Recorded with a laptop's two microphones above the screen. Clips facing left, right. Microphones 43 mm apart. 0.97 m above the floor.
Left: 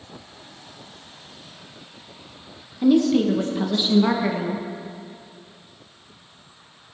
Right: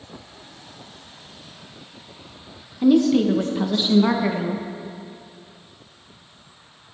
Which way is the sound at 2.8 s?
5° right (ahead or behind).